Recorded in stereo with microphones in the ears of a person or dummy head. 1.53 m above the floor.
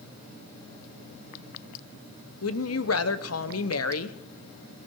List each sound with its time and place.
2.4 s a woman speaking: 70° left (ahead or behind), 1.0 m